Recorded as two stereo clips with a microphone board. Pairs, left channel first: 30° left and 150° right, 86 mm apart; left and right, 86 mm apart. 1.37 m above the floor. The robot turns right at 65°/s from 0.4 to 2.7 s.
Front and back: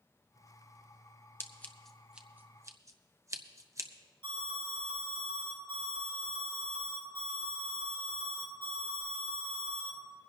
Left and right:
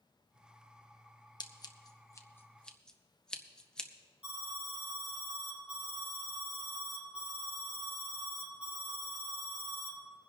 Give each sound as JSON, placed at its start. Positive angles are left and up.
{"t": 1.4, "sound": "scissors", "azimuth_deg": 85, "distance_m": 0.8}
{"t": 4.2, "sound": "an alarm", "azimuth_deg": -165, "distance_m": 4.5}